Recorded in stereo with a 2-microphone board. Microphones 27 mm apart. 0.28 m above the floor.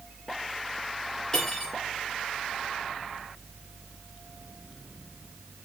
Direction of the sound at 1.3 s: 30° left (ahead or behind).